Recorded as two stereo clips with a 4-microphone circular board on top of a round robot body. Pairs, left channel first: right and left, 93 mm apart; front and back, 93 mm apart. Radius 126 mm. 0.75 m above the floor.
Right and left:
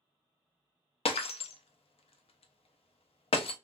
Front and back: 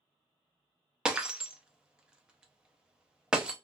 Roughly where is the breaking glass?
Right.